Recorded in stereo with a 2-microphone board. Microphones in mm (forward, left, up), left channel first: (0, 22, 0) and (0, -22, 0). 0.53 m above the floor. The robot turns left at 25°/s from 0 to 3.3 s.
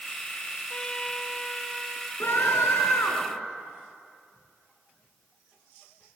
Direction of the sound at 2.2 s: 65° left (ahead or behind).